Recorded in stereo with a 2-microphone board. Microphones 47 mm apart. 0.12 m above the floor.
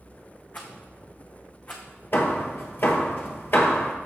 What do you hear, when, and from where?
0.5 s a rattle: 35° left (ahead or behind), 1.9 m
2.1 s hammering: 50° left (ahead or behind), 1.4 m